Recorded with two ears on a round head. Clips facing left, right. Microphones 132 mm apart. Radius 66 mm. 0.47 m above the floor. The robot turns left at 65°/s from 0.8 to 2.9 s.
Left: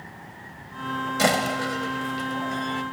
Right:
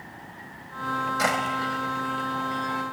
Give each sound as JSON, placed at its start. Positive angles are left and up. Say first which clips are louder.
{"t": 1.2, "sound": "a door slam", "louder": "left 6 dB", "side_deg": 35}